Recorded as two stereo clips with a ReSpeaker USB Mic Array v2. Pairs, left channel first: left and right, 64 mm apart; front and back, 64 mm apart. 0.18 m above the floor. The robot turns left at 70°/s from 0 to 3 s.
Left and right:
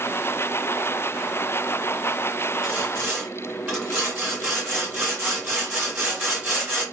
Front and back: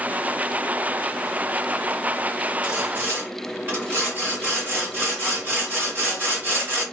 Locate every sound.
2.6 s sawing: 125° right, 2.0 m; by 6.8 s 155° right, 2.0 m